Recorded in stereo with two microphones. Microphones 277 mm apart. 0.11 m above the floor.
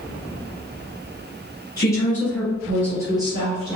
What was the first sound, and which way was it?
A woman speaking, 15° left (ahead or behind).